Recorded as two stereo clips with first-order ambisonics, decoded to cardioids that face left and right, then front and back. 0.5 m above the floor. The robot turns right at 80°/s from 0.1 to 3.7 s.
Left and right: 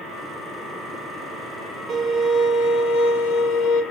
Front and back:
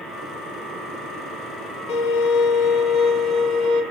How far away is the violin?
About 2.0 m.